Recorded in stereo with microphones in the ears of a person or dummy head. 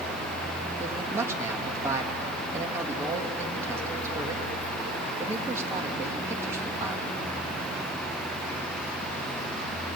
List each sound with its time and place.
0.8 s a man speaking: 20° right (ahead or behind), 2 m